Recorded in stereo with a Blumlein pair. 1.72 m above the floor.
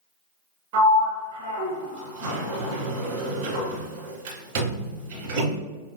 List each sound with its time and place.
0.7 s a sliding door: 45° right, 1.8 m